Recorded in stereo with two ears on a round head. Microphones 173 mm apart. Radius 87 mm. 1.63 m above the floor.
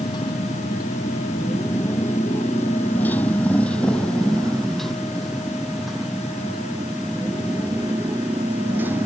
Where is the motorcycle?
20° left (ahead or behind); by 9.1 s 10° right (ahead or behind).